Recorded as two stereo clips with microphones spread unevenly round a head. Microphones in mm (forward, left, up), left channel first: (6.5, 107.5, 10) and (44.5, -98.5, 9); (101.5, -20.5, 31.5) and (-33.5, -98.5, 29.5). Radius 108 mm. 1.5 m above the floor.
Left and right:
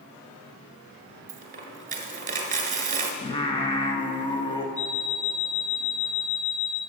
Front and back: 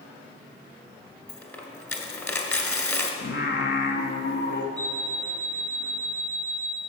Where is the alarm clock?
45° left, 3 m.